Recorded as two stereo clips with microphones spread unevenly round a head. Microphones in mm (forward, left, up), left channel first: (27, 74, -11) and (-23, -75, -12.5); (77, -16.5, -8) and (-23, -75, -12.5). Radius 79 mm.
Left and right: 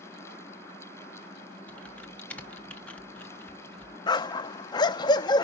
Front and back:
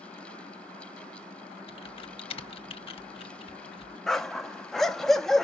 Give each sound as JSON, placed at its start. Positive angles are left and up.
{"t": 1.7, "sound": "typing on a keyboard", "azimuth_deg": -10, "distance_m": 1.2}
{"t": 4.1, "sound": "a dog barking", "azimuth_deg": 115, "distance_m": 0.6}